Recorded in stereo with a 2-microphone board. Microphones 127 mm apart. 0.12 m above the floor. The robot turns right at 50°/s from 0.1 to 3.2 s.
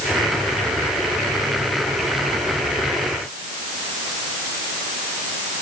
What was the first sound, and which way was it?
Only background noise.